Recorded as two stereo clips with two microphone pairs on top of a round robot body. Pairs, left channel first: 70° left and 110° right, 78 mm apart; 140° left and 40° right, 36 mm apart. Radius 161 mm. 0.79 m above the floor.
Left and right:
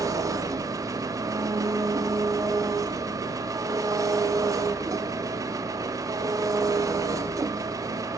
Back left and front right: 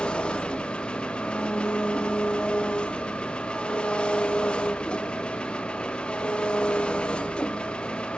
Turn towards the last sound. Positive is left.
turn(degrees=-155)